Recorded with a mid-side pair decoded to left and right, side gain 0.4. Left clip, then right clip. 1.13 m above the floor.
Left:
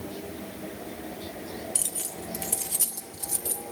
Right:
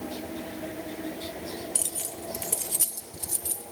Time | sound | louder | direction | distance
1.8 | keys jangling | even | straight ahead | 0.9 m